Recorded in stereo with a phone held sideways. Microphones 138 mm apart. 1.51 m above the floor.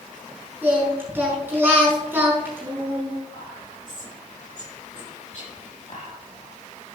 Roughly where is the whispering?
Left.